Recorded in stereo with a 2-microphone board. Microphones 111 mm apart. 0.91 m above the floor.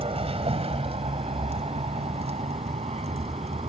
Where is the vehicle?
65° right (ahead or behind); by 3.7 s 75° right (ahead or behind).